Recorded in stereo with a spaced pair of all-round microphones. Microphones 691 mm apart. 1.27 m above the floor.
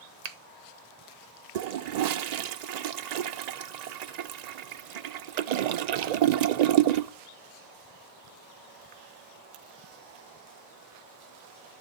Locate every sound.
0.2 s a finger snap: 70° right (ahead or behind), 0.9 m
1.6 s a toilet flushing: 75° right (ahead or behind), 0.5 m